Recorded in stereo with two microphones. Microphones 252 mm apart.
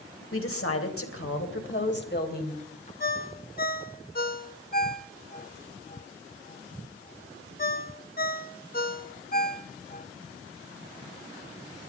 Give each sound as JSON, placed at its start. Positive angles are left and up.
{"t": 0.3, "sound": "a woman speaking", "side_deg": 60, "distance_m": 3.0}
{"t": 3.0, "sound": "a ringtone", "side_deg": 40, "distance_m": 0.9}